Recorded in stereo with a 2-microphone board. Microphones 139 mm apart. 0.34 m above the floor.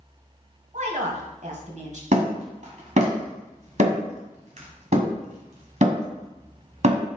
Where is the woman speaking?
60° right (ahead or behind), 2.0 m.